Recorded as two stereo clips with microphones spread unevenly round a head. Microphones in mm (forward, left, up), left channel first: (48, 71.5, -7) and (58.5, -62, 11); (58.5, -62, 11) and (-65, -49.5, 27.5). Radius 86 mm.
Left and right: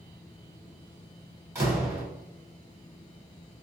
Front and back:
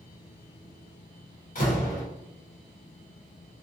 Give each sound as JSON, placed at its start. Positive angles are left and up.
{"t": 1.6, "sound": "a door slam", "azimuth_deg": -15, "distance_m": 2.0}